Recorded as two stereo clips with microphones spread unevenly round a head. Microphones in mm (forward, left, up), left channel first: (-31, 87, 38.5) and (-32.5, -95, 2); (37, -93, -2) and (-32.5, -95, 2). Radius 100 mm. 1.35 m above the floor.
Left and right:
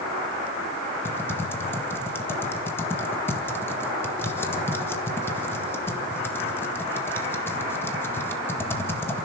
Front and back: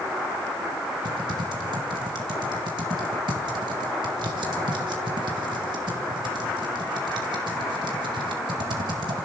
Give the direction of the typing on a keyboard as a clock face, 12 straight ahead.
6 o'clock.